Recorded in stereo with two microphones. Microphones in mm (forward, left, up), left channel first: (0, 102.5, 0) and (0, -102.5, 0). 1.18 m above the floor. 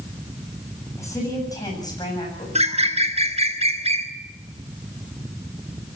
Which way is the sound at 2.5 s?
30° right (ahead or behind).